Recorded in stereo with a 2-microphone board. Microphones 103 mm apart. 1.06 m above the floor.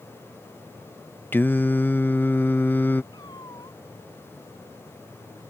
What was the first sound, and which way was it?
Singing, 20° left (ahead or behind).